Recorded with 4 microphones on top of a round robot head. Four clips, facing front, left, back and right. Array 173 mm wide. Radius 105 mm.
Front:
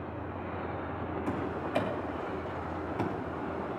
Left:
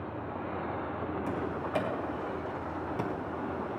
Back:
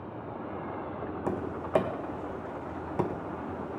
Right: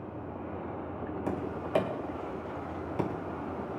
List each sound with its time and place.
1.3 s tapping: 160° right, 1.9 m